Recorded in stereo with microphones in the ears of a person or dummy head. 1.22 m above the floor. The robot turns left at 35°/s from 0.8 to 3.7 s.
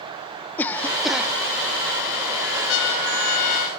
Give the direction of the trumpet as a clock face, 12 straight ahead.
10 o'clock.